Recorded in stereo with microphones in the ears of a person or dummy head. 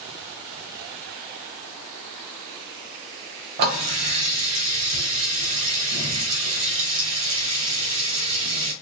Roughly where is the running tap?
Right.